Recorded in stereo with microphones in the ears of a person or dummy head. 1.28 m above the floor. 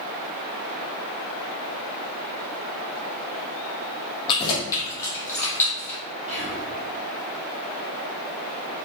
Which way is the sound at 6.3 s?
35° right (ahead or behind).